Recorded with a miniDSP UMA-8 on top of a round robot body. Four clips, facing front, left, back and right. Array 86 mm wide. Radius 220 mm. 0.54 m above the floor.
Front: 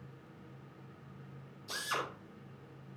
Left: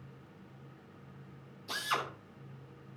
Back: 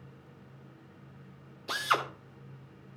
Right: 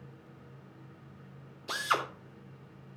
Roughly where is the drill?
Behind right.